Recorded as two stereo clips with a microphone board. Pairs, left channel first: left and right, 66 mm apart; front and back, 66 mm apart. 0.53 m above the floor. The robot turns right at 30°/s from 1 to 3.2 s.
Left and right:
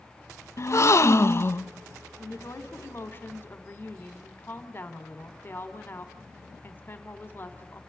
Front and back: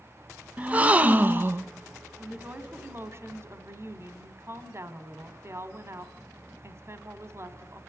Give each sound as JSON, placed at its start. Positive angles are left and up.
{"t": 0.6, "sound": "a gasp", "azimuth_deg": 120, "distance_m": 0.5}
{"t": 2.2, "sound": "a woman speaking", "azimuth_deg": 115, "distance_m": 1.7}